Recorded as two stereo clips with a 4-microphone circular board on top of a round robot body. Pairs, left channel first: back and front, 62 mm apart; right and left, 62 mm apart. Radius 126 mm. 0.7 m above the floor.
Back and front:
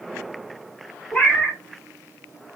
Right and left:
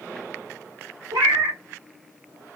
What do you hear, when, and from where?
1.1 s a cat meowing: 105° left, 1.0 m